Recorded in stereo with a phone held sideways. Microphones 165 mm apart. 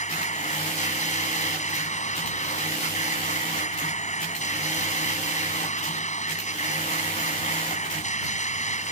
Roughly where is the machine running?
Left.